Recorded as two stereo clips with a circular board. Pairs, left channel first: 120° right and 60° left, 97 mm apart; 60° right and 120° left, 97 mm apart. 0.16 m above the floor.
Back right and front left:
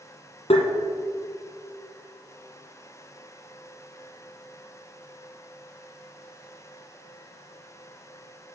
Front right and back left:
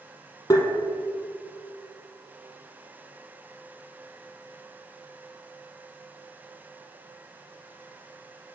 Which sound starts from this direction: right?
Tapping, at 0.5 s.